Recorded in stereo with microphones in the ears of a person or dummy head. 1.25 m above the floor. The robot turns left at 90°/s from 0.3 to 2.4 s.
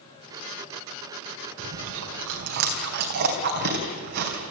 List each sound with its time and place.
1.6 s chewing: 55° right (ahead or behind), 3 m; by 4.5 s 50° right (ahead or behind), 3 m